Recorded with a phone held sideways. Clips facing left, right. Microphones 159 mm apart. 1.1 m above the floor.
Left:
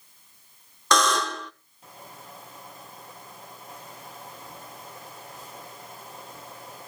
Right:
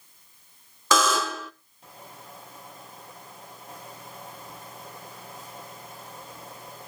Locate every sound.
0.9 s a buzzer: 5° right (ahead or behind), 0.8 m